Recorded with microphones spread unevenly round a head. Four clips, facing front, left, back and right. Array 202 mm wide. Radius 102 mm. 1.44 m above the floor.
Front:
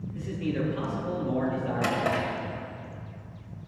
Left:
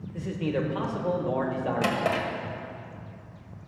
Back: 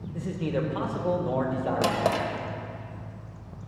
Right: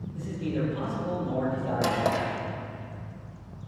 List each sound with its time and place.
0.1 s a man speaking: 140° left, 1.9 m
1.8 s a drawer: 140° right, 1.3 m